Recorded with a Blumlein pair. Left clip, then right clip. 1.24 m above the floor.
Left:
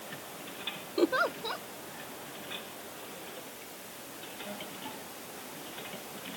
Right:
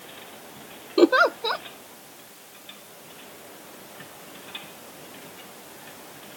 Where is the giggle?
30° right.